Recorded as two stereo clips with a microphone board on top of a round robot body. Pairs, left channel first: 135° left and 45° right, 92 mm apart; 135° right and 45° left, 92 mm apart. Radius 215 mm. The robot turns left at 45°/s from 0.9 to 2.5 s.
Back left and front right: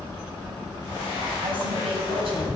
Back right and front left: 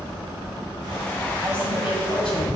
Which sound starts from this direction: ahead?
A woman speaking, at 1.4 s.